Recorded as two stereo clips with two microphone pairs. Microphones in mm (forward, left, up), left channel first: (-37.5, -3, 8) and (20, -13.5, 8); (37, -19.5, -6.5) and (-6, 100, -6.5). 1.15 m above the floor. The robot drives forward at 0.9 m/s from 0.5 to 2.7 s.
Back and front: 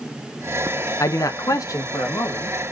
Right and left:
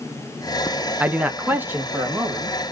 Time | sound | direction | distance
1.0 | a man speaking | 175° right | 0.6 m